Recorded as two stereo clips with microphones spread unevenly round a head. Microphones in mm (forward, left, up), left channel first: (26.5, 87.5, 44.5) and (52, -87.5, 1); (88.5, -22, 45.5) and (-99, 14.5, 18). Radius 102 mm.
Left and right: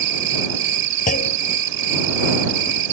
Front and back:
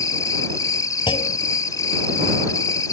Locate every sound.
0.0 s an insect: 85° right
1.1 s a clunk: 55° left